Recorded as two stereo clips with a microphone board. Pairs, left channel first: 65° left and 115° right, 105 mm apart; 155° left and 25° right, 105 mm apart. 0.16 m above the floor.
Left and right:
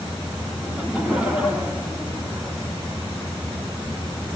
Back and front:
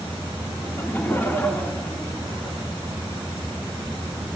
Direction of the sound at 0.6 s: 175° right.